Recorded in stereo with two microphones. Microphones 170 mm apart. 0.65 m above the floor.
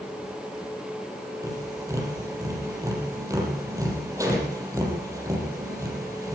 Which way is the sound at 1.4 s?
20° right (ahead or behind).